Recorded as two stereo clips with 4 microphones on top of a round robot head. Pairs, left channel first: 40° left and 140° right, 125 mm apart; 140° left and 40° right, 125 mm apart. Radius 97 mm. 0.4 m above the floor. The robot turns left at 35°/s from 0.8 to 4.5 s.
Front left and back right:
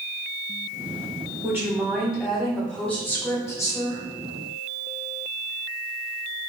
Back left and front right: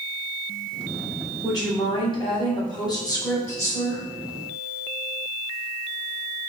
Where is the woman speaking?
165° left, 1.2 m; by 4.0 s 75° left, 1.2 m.